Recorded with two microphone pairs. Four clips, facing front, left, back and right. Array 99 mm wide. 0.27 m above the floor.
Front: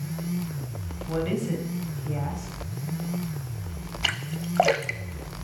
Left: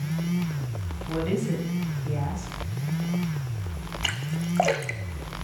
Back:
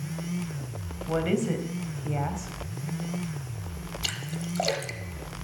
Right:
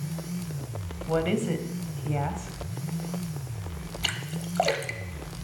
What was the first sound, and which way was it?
A woman speaking, 125° right.